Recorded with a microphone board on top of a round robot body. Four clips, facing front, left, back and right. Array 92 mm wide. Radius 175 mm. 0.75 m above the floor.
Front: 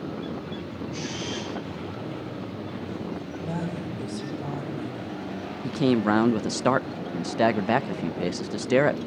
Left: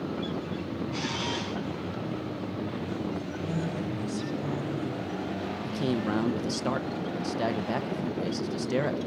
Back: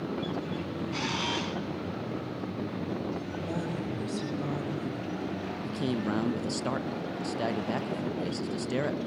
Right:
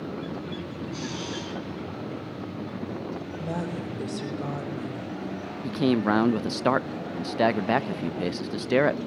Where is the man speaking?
45° right, 0.7 m.